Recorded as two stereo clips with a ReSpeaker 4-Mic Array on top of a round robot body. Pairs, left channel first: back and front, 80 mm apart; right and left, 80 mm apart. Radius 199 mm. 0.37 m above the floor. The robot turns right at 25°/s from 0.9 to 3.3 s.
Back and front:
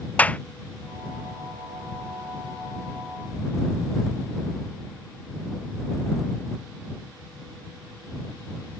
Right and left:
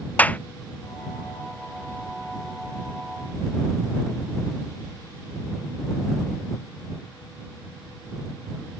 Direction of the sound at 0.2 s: 130° right.